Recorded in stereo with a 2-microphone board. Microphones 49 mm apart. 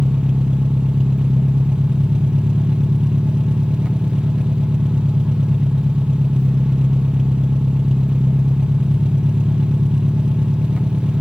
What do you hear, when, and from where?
0.0 s an engine running: 20° right (ahead or behind), 0.7 m